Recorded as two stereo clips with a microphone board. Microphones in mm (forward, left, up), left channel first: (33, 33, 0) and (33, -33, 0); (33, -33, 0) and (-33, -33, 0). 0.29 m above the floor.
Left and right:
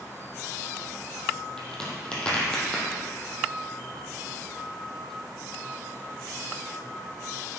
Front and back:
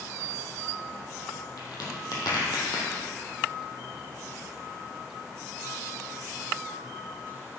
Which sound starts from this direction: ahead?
A crack, at 1.6 s.